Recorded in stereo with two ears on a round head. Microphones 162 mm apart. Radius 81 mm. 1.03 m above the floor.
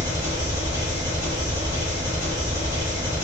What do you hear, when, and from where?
0.0 s an engine running: 65° left (ahead or behind), 1.6 m